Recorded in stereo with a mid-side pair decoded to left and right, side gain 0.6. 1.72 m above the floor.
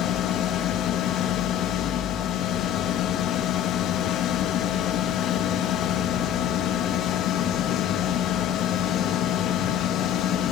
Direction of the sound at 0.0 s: 60° left.